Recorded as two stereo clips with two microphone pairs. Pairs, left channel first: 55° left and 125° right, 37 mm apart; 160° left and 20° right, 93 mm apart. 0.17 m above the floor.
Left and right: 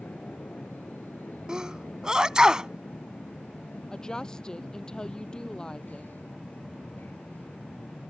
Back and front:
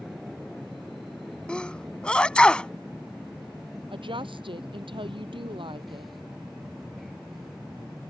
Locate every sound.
0.0 s an aircraft: 70° left
1.5 s a sneeze: 145° right
3.9 s a woman speaking: 15° right